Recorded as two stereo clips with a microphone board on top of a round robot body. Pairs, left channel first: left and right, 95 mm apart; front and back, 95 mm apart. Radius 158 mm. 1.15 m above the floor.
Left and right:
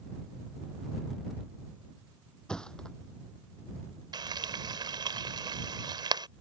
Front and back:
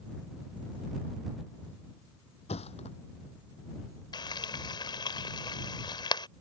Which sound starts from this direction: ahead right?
Frying, at 4.1 s.